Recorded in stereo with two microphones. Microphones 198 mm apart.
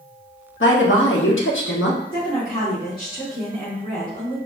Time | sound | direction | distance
0.6 | a woman speaking | 80° left | 1.1 m
2.1 | a woman speaking | 25° left (ahead or behind) | 2.5 m